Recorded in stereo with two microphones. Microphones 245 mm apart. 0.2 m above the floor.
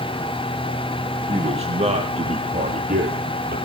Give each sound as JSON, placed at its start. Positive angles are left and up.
{"t": 1.3, "sound": "a man speaking", "side_deg": -25, "distance_m": 7.0}